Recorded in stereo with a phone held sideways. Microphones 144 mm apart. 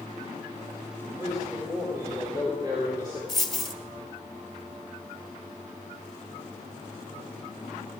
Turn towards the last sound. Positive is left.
turn(degrees=0)  # may be behind; listen again after turning